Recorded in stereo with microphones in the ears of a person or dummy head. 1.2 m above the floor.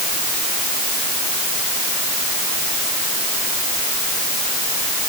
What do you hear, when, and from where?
Only background noise.